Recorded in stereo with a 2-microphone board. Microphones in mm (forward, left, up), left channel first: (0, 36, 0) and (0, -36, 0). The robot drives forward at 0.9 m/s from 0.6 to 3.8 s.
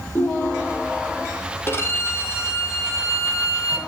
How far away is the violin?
About 4 m.